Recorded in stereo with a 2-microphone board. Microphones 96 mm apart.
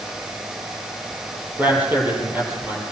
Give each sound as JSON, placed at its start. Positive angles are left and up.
{"t": 1.6, "sound": "a man speaking", "side_deg": -20, "distance_m": 8.5}